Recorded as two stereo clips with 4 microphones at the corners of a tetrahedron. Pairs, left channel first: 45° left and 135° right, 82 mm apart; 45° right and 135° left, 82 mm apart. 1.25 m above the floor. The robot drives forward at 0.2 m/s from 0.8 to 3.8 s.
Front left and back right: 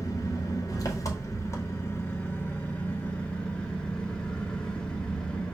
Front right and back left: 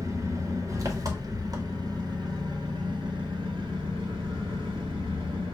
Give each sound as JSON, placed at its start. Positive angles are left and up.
{"t": 0.0, "sound": "an engine running", "azimuth_deg": 90, "distance_m": 0.9}